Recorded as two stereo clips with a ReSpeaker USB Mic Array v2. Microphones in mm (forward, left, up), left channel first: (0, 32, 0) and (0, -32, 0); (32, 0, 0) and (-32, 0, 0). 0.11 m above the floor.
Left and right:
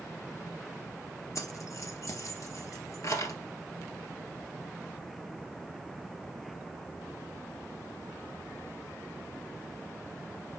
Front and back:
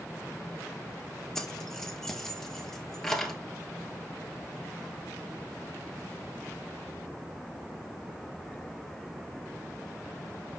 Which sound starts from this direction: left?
Keys jangling, at 1.4 s.